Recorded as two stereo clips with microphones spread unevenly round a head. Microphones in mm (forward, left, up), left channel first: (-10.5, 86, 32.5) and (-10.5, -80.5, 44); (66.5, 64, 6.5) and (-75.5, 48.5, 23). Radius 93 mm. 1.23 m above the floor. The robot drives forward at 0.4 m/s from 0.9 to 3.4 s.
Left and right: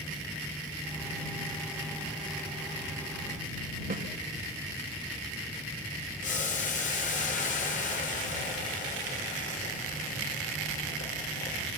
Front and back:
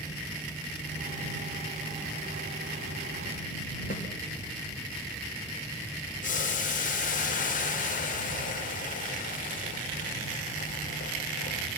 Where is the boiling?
40° left, 3 m.